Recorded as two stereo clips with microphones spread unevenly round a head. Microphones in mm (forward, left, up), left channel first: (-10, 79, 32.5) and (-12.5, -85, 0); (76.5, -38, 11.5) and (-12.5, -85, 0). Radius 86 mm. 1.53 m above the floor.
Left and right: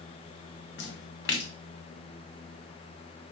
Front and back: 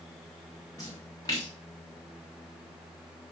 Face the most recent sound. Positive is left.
turn(degrees=95)